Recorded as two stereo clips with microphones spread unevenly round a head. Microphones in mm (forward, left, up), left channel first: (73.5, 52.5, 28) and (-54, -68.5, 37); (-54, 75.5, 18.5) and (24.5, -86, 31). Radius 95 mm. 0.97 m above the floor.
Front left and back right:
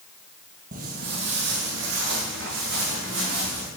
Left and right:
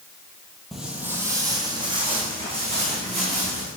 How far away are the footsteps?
About 1.2 m.